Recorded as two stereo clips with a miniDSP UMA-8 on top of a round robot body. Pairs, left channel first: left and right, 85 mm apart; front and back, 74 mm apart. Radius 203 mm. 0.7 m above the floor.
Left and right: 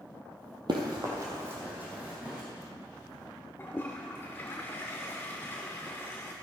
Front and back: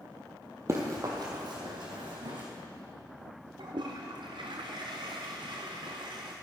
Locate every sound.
0.7 s running footsteps: 125° right, 1.4 m; by 2.4 s 165° right, 3 m
3.6 s a toilet flushing: 155° left, 0.6 m